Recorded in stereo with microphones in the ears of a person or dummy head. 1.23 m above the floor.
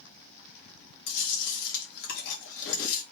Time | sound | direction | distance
1.1 | chewing | 60° left (ahead or behind) | 2.0 m